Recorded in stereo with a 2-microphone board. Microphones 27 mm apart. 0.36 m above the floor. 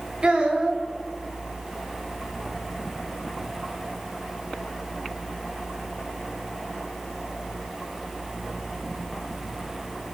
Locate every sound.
0.2 s a child speaking: 40° right (ahead or behind), 0.7 m